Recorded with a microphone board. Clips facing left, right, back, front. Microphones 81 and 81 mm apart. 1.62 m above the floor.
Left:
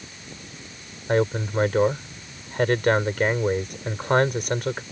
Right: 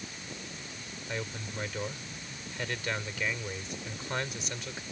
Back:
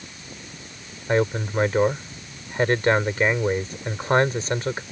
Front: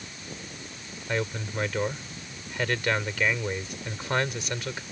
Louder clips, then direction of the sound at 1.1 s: Left 17 dB, back 9 dB; 125° left.